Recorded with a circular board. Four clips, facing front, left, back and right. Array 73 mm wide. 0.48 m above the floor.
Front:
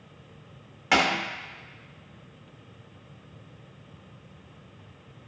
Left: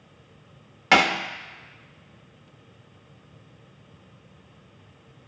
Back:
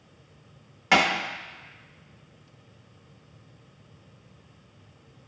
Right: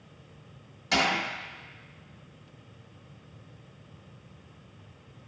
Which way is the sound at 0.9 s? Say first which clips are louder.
Left 7 dB, back 1 dB; 90° left.